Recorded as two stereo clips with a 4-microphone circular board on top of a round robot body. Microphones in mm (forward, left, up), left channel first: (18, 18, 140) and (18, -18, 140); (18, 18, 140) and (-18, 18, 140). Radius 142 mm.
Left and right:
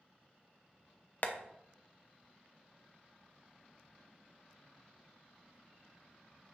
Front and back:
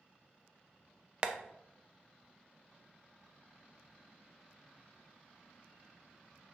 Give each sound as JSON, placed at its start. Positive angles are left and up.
{"t": 1.2, "sound": "tapping", "azimuth_deg": 120, "distance_m": 0.6}